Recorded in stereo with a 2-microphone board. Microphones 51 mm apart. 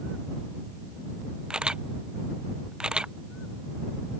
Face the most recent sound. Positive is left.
turn(degrees=-15)  # may be behind; listen again after turning